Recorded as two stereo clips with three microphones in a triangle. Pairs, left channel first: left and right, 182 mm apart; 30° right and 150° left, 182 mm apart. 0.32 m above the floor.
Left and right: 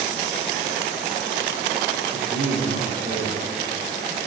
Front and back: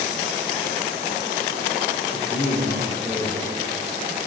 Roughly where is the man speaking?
Right.